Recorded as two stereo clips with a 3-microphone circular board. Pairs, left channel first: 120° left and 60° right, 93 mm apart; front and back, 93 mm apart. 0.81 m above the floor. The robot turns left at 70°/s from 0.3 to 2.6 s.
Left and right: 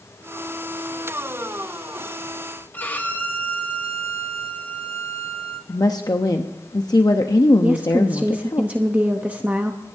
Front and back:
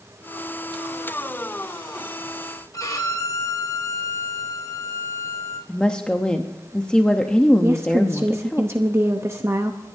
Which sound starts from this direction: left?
A woman speaking, at 5.7 s.